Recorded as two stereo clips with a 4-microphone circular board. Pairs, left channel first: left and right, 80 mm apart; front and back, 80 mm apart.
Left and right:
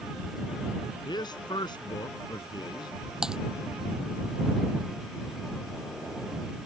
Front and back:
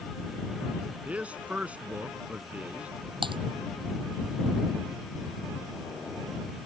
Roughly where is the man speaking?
Left.